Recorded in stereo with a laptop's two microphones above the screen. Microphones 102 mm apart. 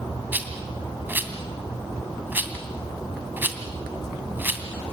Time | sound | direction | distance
0.3 | a rattle | 20° right (ahead or behind) | 2 m